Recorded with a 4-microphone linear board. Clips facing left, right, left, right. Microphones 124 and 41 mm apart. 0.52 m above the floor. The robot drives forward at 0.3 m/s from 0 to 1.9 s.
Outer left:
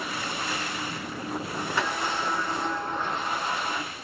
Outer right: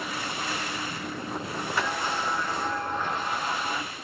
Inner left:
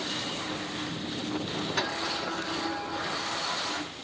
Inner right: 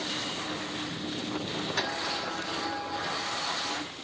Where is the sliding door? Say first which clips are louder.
Even, inner left 1 dB; 20° left (ahead or behind), 3.5 m.